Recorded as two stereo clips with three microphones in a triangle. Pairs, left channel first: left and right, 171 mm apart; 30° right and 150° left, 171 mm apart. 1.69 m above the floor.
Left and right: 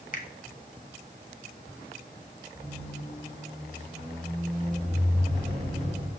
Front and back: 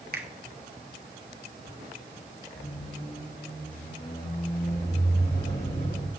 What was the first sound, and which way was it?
A finger snap, 125° left.